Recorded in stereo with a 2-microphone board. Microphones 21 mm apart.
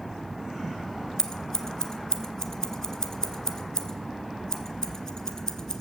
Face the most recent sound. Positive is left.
turn(degrees=35)  # may be behind; listen again after turning